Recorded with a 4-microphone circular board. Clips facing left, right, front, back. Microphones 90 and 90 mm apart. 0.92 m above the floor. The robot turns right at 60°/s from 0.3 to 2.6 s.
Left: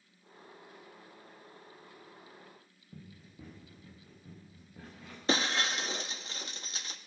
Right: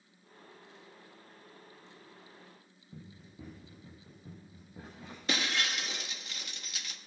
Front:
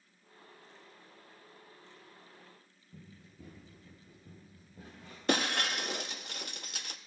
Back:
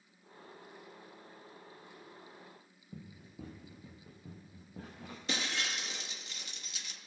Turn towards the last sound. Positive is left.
turn(degrees=35)